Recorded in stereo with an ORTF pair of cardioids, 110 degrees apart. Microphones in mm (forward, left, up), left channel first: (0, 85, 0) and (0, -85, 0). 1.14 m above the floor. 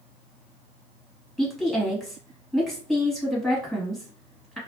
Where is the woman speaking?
Straight ahead, 1.5 m.